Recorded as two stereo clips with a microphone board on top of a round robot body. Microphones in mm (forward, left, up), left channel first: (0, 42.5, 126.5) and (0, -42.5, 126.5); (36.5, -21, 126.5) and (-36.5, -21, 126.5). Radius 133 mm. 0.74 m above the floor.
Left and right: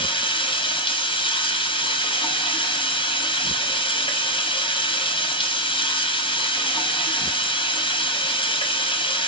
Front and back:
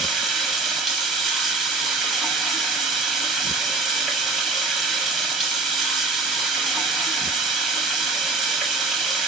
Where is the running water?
90° left, 1.5 m.